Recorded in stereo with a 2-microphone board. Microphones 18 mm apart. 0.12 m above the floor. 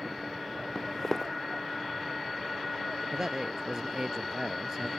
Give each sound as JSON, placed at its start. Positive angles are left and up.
{"t": 0.8, "sound": "footsteps", "side_deg": 20}
{"t": 3.1, "sound": "a man speaking", "side_deg": -35}